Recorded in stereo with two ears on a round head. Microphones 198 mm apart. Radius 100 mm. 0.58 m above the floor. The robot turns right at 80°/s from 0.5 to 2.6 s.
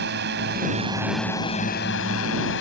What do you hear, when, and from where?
0.0 s a drone: 55° right; by 2.6 s 115° left